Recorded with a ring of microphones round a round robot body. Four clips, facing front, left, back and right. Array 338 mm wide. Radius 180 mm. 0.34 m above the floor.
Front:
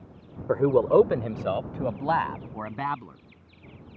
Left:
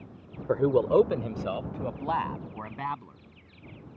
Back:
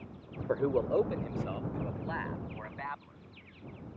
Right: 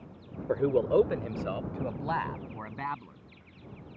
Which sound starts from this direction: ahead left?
A man speaking, at 0.5 s.